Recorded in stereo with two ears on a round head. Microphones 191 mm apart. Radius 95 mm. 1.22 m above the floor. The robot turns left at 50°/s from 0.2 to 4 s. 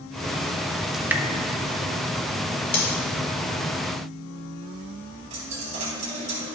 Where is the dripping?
Centre (ahead or behind), 0.9 m; by 1.2 s 15° right (ahead or behind), 0.9 m.